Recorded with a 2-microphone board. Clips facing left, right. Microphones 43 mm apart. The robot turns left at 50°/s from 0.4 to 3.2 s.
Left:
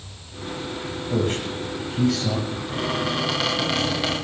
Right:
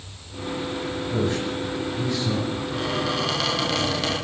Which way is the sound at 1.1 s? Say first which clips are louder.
Left 2 dB; 40° left (ahead or behind).